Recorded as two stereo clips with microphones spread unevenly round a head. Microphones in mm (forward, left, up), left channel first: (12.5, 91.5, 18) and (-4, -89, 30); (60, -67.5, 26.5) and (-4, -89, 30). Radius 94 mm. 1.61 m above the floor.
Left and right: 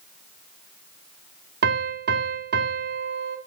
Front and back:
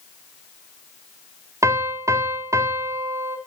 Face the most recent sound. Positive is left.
turn(degrees=-125)